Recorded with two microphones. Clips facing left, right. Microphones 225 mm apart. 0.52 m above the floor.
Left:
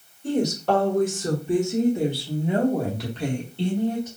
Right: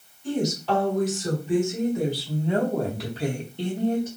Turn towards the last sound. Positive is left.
turn(degrees=-25)  # may be behind; listen again after turning